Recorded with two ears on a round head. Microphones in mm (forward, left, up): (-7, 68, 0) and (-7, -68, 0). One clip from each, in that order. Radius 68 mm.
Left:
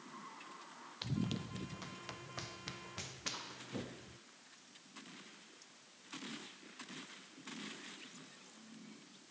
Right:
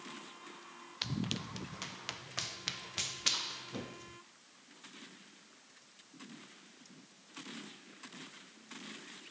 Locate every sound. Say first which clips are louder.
1.0 s running footsteps: right 5 dB; 40° right (ahead or behind); by 4.2 s 60° right (ahead or behind)